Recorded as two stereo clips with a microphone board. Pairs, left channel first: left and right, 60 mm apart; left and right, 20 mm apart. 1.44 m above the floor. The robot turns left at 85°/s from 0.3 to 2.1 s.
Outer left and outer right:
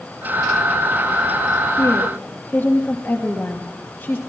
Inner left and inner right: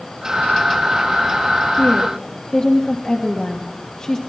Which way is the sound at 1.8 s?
65° left (ahead or behind).